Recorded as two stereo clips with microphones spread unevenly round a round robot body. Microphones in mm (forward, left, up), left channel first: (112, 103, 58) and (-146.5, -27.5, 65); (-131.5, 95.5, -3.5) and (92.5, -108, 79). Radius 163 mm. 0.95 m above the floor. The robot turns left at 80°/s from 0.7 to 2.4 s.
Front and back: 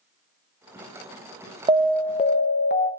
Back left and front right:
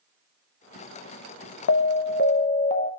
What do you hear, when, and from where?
1.7 s an alarm: 135° left, 1.0 m; by 2.9 s 75° left, 1.0 m